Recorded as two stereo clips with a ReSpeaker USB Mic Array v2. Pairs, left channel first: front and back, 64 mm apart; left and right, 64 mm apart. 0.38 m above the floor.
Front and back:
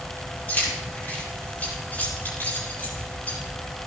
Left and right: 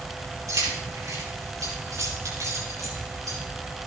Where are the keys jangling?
60° right, 7.5 m.